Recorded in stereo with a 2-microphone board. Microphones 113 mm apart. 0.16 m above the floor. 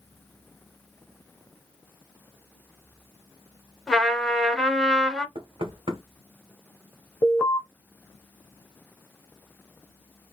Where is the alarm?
20° left (ahead or behind), 1.3 m.